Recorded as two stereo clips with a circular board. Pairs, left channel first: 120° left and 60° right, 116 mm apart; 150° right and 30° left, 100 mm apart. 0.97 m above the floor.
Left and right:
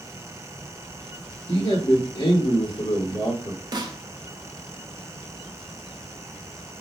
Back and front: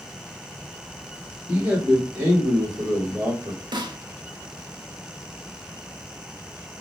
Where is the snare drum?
10° right, 0.5 m.